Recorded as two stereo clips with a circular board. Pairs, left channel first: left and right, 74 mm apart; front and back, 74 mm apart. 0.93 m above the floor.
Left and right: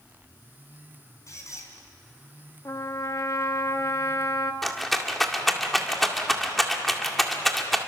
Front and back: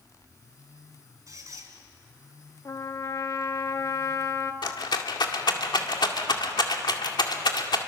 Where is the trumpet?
45° left, 1.3 m.